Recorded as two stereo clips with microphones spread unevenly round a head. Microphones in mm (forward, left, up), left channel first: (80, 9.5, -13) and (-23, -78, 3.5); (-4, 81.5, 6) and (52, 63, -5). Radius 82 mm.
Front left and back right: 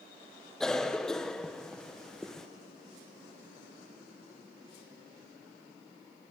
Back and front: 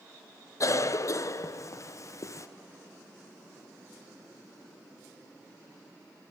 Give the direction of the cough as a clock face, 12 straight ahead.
8 o'clock.